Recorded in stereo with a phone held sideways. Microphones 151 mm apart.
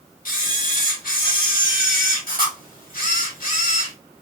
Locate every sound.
0.2 s a camera shutter: 70° left (ahead or behind), 1.2 m